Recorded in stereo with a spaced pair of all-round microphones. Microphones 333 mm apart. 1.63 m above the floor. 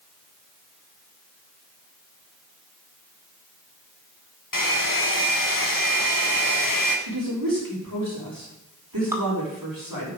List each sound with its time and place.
4.5 s a hair dryer: 75° left (ahead or behind), 1.4 m
7.1 s a woman speaking: 85° right, 5.5 m
9.1 s dripping: 10° right (ahead or behind), 1.9 m